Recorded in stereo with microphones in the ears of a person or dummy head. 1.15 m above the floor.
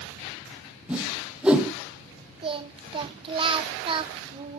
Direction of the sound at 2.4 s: 30° right (ahead or behind).